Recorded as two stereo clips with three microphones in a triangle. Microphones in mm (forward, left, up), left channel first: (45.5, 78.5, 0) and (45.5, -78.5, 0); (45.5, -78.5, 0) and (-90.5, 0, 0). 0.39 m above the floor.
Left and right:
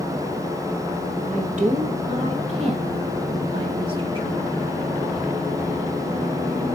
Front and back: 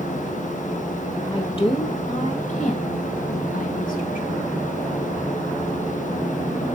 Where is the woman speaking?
85° right, 1.6 m; by 4.6 s 35° right, 2.5 m.